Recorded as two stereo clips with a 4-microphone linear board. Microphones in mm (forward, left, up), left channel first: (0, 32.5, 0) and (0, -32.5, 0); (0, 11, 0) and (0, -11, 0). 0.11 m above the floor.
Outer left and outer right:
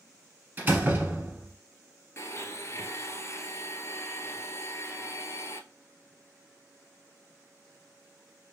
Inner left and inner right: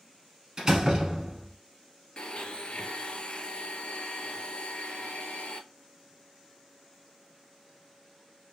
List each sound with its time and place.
0.6 s a door slam: 30° right (ahead or behind), 1.4 m
2.2 s a blender: 45° left (ahead or behind), 0.6 m